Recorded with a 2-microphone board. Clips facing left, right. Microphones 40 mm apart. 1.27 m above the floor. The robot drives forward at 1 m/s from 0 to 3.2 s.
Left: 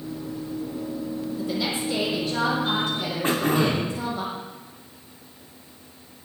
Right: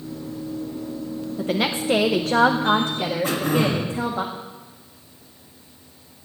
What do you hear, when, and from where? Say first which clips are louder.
1.4 s a woman speaking: right 6 dB; 40° right (ahead or behind), 1.1 m; by 4.2 s 35° right (ahead or behind), 1.2 m
3.2 s throat clearing: left 1 dB; 40° left (ahead or behind), 2.5 m